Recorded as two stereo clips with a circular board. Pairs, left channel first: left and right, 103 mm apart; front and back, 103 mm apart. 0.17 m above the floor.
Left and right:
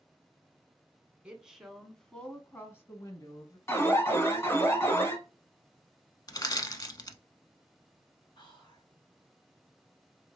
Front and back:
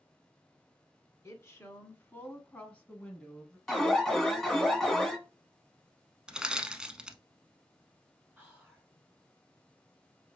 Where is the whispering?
105° left, 2.5 m.